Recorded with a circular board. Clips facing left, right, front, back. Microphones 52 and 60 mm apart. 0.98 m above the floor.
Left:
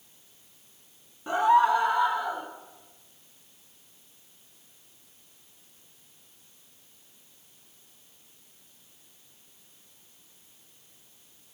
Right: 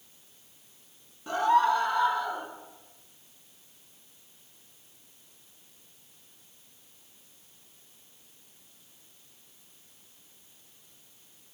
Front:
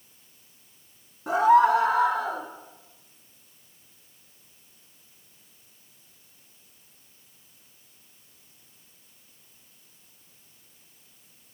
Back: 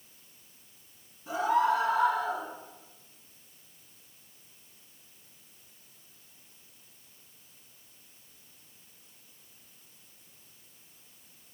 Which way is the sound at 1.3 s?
20° left.